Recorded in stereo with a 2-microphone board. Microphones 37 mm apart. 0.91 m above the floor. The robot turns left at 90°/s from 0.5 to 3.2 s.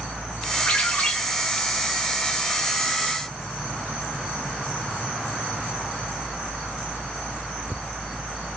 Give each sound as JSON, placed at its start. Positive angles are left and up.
{"t": 0.7, "sound": "a ringtone", "azimuth_deg": 65, "distance_m": 1.9}